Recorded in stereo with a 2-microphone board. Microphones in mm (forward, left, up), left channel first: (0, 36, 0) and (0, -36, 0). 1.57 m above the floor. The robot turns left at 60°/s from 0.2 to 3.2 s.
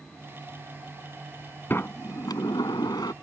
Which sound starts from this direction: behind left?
A sliding door, at 1.7 s.